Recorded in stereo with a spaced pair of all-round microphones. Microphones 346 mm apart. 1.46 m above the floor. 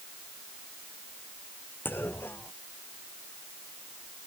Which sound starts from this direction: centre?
A clunk, at 1.9 s.